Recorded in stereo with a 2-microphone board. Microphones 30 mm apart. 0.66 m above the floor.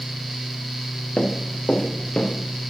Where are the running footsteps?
25° left (ahead or behind), 5 m; by 2.3 s 35° left (ahead or behind), 6 m.